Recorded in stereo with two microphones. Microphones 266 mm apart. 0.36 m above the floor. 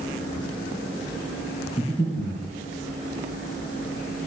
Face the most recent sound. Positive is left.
turn(degrees=25)  # may be behind; listen again after turning